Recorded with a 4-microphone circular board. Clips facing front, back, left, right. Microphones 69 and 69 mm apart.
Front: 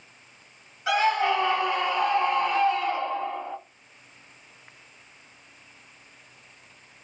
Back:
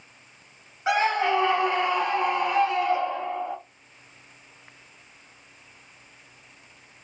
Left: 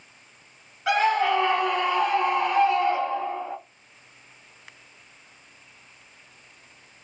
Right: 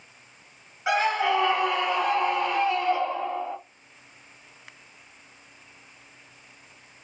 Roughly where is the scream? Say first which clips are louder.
Even, left 2 dB; behind right.